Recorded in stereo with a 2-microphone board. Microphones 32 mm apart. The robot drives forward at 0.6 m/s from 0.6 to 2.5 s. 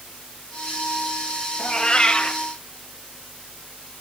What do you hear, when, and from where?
1.6 s a cat meowing: 25° left (ahead or behind), 1.3 m; by 2.4 s 35° left (ahead or behind), 0.9 m